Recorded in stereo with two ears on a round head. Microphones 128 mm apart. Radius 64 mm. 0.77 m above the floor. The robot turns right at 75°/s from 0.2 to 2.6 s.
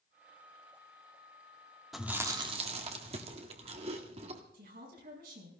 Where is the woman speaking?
65° right (ahead or behind), 6 m.